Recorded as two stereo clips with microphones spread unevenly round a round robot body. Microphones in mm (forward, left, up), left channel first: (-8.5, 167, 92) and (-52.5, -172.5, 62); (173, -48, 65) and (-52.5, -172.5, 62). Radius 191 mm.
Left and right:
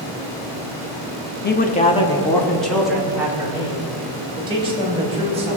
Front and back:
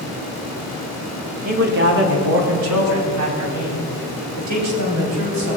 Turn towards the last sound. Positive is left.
turn(degrees=-170)